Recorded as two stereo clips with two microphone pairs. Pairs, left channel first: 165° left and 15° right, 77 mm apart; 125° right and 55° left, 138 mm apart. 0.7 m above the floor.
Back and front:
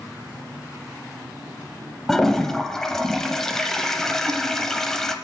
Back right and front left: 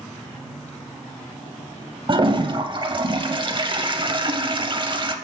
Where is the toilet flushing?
80° left, 0.6 m.